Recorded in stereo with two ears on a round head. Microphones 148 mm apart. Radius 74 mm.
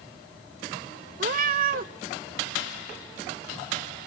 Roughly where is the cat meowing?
Right.